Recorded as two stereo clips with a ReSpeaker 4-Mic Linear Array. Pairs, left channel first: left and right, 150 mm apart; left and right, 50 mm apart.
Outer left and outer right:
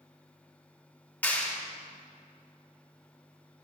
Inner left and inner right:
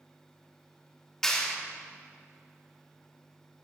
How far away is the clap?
About 3 m.